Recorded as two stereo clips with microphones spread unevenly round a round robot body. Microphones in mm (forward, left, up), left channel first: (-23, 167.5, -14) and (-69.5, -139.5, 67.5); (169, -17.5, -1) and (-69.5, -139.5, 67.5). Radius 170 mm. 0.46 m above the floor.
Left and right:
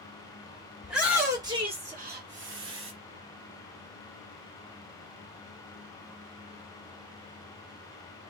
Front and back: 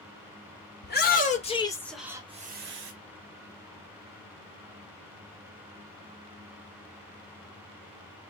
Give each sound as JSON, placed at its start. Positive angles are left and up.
{"t": 0.8, "sound": "a shout", "azimuth_deg": 0, "distance_m": 1.5}